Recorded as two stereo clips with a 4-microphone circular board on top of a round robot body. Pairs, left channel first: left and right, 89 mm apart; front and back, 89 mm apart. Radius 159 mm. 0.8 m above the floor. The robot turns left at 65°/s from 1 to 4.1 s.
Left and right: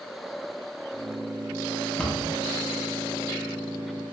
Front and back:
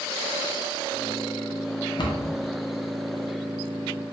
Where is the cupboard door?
15° left, 0.9 m; by 2.3 s 10° right, 0.9 m.